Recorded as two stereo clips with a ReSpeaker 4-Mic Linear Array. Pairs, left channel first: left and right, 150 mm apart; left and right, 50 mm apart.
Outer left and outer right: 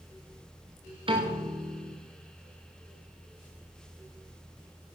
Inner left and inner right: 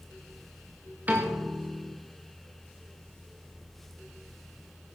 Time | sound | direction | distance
1.1 | a piano | 35° right (ahead or behind) | 3 m